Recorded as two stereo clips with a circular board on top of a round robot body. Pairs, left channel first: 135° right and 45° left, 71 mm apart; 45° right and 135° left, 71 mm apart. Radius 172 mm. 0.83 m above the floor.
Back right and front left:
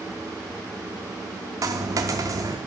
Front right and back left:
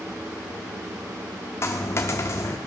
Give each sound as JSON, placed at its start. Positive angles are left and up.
{"t": 1.6, "sound": "a dropped coin", "azimuth_deg": 5, "distance_m": 0.5}